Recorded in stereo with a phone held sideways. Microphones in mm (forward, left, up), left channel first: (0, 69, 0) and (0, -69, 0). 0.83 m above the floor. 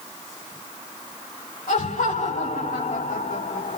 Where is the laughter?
85° left, 6 m.